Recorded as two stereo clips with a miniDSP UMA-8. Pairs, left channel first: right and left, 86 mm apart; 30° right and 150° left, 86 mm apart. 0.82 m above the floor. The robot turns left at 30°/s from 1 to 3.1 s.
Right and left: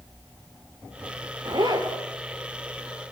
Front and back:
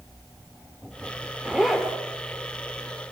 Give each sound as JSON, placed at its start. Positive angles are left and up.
{"t": 1.4, "sound": "a zipper", "azimuth_deg": 70, "distance_m": 3.0}